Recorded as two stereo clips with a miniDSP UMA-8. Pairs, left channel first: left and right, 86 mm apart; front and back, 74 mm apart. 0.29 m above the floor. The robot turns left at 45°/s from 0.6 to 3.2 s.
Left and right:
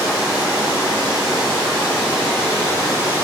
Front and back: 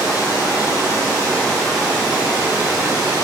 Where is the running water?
40° right, 1.9 m; by 3.3 s 160° right, 1.9 m.